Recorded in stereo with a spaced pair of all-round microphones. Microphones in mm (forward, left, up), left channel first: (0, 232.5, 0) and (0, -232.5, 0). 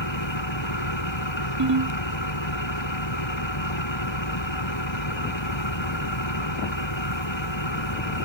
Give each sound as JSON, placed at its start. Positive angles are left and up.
{"t": 0.0, "sound": "an engine running", "side_deg": 75}
{"t": 1.6, "sound": "a ringtone", "side_deg": -55}